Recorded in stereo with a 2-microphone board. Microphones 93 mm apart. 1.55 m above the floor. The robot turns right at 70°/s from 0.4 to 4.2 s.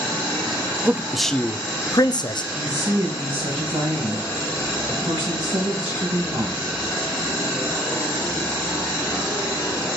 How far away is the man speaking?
About 0.6 m.